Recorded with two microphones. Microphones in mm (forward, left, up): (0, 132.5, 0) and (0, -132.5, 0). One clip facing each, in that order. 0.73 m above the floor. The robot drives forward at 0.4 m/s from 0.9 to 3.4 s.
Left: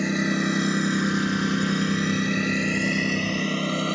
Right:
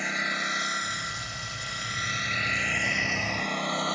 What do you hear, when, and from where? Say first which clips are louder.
0.0 s a lawn mower: left 15 dB; 50° left (ahead or behind); by 4.0 s 30° left (ahead or behind)